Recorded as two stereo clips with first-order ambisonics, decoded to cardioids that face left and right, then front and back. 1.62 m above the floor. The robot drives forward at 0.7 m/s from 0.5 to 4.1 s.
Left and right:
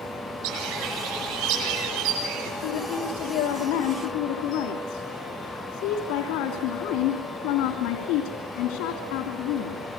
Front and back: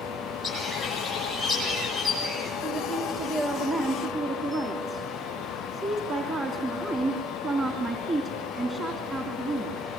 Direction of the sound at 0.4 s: 85° right.